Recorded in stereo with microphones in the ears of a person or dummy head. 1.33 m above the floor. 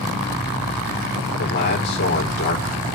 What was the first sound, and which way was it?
A man speaking, 60° left (ahead or behind).